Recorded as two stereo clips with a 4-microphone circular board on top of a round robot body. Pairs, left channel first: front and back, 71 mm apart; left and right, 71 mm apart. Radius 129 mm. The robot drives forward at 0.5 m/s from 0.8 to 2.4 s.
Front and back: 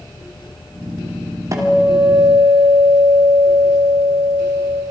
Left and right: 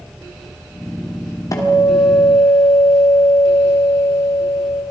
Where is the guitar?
135° left, 3 m; by 4.8 s 140° left, 3 m.